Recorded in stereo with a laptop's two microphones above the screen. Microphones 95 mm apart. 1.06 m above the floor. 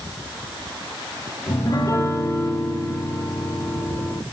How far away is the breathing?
I don't hear breathing.